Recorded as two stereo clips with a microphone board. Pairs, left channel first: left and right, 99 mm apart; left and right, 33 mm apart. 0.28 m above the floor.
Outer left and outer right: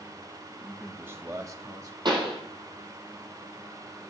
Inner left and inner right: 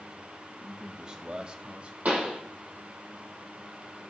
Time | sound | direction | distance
0.5 | a man speaking | 5° right (ahead or behind) | 1.7 m
2.0 | a pop | 50° right (ahead or behind) | 4.5 m